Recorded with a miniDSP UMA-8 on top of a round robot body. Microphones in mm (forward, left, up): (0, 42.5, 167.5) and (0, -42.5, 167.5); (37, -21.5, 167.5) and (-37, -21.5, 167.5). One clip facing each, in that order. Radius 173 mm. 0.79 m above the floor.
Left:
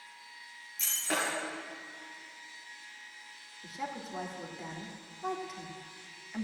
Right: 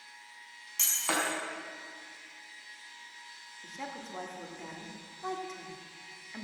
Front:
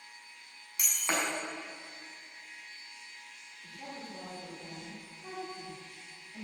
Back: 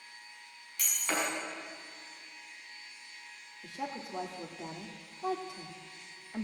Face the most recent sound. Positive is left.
turn(degrees=175)